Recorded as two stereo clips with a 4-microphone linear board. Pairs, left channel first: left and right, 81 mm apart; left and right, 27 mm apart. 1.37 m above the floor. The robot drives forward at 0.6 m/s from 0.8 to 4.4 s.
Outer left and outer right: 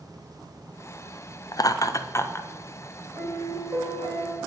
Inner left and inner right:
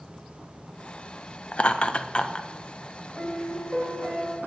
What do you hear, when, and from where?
1.5 s laughter: 50° left (ahead or behind), 0.5 m; by 2.5 s 30° left (ahead or behind), 0.9 m
3.1 s a piano: 60° right (ahead or behind), 3 m; by 4.4 s 70° right (ahead or behind), 3 m